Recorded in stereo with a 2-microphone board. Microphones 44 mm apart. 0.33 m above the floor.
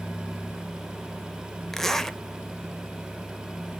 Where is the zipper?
10° left (ahead or behind), 0.9 m.